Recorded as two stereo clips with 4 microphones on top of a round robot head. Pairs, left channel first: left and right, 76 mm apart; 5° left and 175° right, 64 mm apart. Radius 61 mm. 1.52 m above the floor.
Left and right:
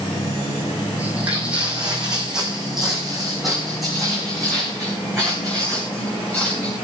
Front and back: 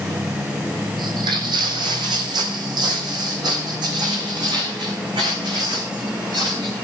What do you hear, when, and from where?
1.0 s footsteps: 165° right, 3 m; by 6.8 s 175° left, 6 m